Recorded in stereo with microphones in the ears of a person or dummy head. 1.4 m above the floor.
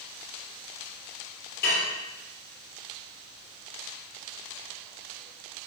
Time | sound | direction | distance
1.6 | dishes clattering | 55° left (ahead or behind) | 2.5 m